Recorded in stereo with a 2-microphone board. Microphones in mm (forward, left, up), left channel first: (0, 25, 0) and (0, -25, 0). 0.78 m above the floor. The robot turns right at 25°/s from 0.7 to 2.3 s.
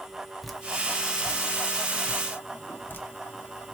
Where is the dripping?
Centre (ahead or behind), 0.7 m; by 3.8 s 40° left (ahead or behind), 0.7 m.